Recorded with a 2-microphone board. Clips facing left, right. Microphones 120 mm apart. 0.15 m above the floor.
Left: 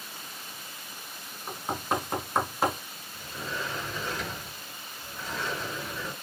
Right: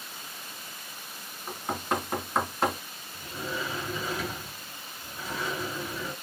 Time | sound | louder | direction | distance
1.5 | knocking | even | 5° left (ahead or behind) | 1.2 m
3.1 | a sliding door | right 2 dB | 10° right (ahead or behind) | 1.7 m